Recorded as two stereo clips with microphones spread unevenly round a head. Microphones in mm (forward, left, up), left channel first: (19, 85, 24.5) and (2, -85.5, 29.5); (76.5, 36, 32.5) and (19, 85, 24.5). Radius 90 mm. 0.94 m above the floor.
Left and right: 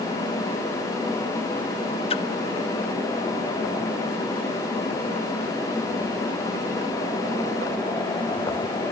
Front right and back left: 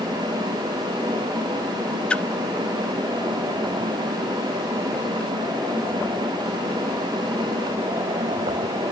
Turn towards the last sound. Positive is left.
turn(degrees=35)